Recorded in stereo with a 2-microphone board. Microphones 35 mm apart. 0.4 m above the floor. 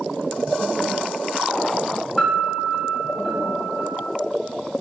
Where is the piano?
Centre (ahead or behind), 1.9 m.